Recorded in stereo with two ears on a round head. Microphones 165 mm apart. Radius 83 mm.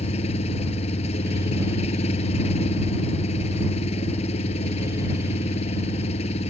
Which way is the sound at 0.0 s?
35° left (ahead or behind).